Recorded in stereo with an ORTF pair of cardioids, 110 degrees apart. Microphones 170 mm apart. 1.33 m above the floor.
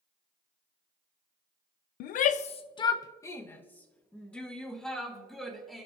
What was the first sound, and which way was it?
A shout, 70° left.